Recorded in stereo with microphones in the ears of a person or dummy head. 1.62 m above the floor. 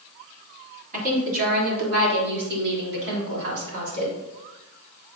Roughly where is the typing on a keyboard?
I don't hear typing on a keyboard.